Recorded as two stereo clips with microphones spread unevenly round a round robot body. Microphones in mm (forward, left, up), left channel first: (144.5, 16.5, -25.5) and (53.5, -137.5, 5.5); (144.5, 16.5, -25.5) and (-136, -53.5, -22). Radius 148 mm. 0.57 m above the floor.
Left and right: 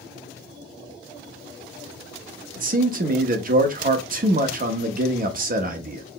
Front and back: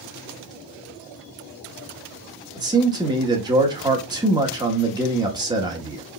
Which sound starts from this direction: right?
A man speaking, at 2.6 s.